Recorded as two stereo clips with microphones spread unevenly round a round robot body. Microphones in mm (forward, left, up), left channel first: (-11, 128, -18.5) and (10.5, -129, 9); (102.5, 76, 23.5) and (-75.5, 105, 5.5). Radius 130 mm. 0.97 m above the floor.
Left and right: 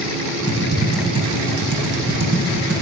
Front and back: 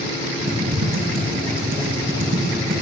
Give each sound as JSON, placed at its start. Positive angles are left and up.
{"t": 0.5, "sound": "typing on a keyboard", "azimuth_deg": -135, "distance_m": 8.0}